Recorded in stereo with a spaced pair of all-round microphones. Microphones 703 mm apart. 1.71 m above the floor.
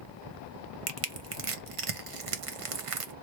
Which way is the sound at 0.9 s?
50° right (ahead or behind).